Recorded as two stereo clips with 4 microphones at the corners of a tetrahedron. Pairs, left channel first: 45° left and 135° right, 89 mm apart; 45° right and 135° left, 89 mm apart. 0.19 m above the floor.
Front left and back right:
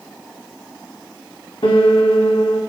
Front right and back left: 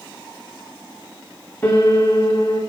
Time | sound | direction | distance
1.6 | a piano | 25° left | 3.5 m